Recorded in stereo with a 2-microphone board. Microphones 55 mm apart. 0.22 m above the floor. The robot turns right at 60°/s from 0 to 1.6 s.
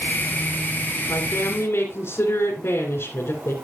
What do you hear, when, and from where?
1.1 s a woman speaking: 90° left, 2.5 m; by 3.5 s 120° left, 2.5 m